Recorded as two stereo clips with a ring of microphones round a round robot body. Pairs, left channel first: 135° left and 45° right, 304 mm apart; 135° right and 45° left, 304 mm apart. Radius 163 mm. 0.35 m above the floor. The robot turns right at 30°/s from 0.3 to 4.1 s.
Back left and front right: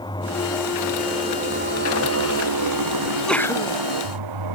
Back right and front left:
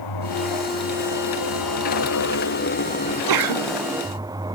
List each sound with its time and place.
0.0 s a motorcycle: 150° right; by 4.5 s 35° right
3.0 s a sneeze: 40° left; by 3.8 s 65° left